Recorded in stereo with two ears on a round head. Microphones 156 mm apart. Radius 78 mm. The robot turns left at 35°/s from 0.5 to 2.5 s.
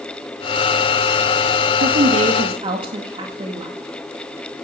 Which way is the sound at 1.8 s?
55° right (ahead or behind).